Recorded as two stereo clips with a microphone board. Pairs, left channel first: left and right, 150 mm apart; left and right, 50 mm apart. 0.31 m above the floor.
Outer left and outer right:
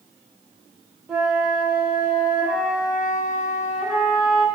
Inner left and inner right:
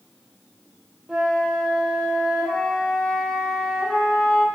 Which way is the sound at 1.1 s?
5° right (ahead or behind).